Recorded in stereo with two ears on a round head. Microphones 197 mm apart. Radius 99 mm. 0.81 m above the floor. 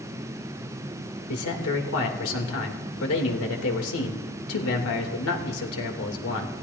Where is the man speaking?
75° left (ahead or behind), 3 m.